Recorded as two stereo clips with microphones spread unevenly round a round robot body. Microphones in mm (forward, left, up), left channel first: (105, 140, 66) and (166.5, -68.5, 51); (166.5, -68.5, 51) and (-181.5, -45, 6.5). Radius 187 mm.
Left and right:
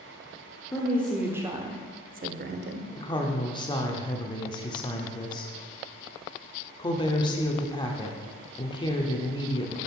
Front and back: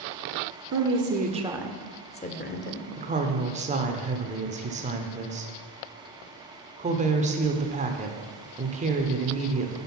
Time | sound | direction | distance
0.7 | a woman speaking | straight behind | 1.0 m
3.0 | a woman speaking | 160° left | 0.9 m